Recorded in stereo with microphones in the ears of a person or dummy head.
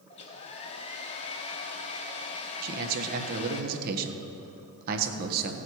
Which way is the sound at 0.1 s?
35° left (ahead or behind).